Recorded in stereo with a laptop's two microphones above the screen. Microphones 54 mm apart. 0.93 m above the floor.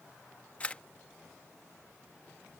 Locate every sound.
0.6 s a camera shutter: 25° left (ahead or behind)